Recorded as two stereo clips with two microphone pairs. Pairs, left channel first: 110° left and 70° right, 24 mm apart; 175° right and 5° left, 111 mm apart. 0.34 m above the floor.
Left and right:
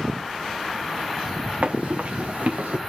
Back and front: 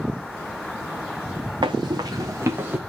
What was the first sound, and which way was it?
Running footsteps, 45° right.